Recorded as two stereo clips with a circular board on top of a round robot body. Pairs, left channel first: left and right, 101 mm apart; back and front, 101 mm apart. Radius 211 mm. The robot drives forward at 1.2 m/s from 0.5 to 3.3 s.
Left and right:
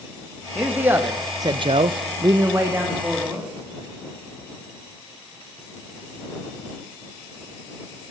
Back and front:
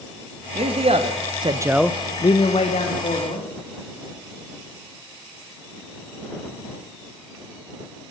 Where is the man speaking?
15° right, 1.6 m; by 3.5 s 170° right, 1.9 m.